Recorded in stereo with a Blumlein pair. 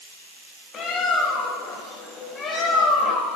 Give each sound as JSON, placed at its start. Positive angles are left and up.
{"t": 0.7, "sound": "a bird", "azimuth_deg": 20, "distance_m": 2.5}